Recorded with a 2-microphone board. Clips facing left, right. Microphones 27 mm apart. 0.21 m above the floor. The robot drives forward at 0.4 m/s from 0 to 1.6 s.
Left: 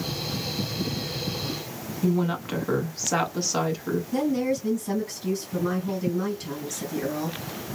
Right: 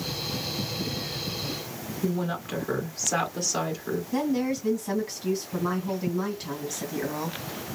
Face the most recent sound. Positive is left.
turn(degrees=-15)  # may be behind; listen again after turning